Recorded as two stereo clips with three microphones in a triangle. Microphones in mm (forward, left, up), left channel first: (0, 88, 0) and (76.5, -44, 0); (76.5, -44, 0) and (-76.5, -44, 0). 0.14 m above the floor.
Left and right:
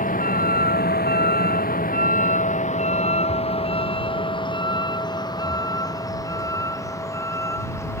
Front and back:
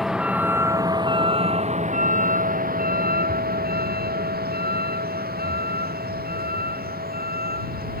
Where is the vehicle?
90° left; by 8.0 s 170° right.